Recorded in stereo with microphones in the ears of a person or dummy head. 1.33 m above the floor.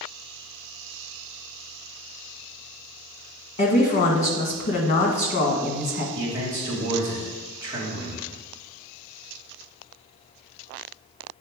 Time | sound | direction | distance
3.6 | a woman speaking | 35° left (ahead or behind) | 1.4 m
6.2 | a man speaking | 20° right (ahead or behind) | 1.8 m